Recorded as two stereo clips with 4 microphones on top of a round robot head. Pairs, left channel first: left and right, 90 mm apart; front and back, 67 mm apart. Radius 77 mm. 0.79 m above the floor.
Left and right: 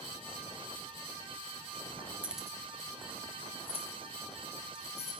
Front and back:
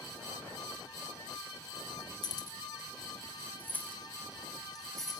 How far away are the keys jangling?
About 1.2 m.